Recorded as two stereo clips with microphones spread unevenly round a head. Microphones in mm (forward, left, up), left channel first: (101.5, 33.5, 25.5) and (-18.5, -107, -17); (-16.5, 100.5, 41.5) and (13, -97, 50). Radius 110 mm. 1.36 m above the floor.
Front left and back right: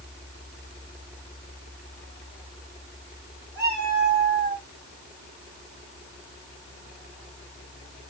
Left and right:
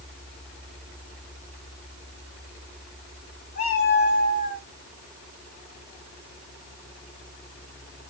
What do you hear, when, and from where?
3.5 s a cat meowing: 155° left, 5 m; by 4.7 s 140° left, 4.5 m